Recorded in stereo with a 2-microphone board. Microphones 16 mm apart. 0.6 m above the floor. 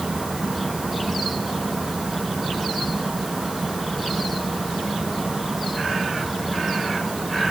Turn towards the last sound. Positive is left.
No sound to turn to.